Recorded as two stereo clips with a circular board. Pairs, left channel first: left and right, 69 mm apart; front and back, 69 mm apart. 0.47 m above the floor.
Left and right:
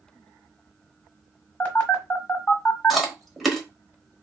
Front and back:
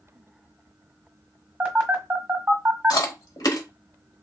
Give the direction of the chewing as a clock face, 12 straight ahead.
12 o'clock.